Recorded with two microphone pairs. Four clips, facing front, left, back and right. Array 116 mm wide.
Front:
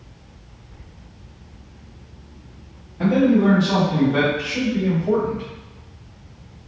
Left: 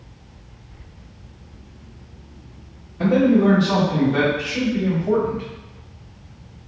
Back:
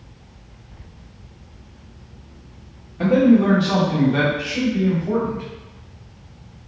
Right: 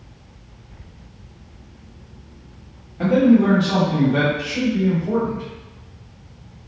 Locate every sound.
3.0 s a man speaking: 140° right, 1.4 m; by 5.5 s 55° left, 1.4 m